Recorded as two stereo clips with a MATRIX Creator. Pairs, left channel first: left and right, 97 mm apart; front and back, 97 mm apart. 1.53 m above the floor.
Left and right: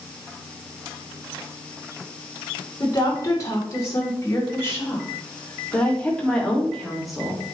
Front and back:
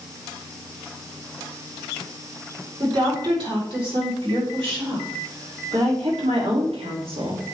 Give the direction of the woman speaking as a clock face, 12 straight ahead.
7 o'clock.